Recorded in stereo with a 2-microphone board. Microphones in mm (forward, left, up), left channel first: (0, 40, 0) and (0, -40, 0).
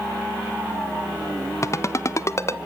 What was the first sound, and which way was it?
A ringtone, 40° left (ahead or behind).